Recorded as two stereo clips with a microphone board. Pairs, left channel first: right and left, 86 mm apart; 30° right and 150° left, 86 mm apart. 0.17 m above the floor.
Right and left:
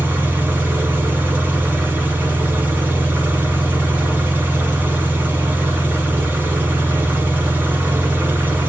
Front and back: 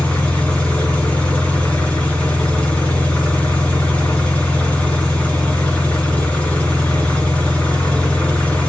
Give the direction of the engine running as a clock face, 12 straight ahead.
11 o'clock.